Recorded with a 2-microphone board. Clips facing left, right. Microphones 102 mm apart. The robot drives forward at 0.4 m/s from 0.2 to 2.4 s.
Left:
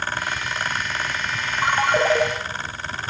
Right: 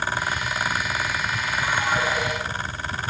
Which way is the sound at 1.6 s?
75° left (ahead or behind).